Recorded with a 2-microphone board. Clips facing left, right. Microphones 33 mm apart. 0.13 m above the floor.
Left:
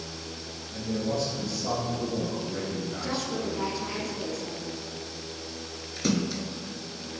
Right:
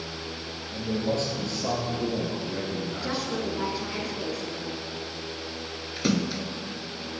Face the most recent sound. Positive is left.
turn(degrees=-20)  # may be behind; listen again after turning